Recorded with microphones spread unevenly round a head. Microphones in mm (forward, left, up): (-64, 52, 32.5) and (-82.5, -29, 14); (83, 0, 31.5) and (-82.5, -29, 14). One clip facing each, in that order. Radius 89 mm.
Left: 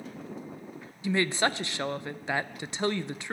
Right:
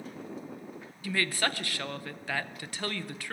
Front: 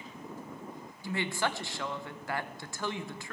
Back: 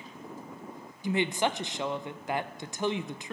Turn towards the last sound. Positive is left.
turn(degrees=150)